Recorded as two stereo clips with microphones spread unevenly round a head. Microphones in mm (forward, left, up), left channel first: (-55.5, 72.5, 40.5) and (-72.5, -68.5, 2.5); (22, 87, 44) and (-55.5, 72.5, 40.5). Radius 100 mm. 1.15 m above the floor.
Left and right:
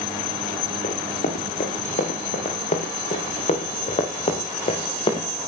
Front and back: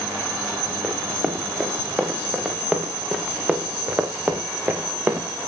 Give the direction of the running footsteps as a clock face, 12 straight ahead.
8 o'clock.